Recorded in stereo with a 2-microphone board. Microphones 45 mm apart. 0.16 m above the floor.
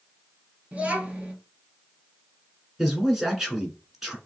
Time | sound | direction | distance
0.7 | a child speaking | 25° right (ahead or behind) | 1.8 m
2.8 | a man speaking | 10° right (ahead or behind) | 1.6 m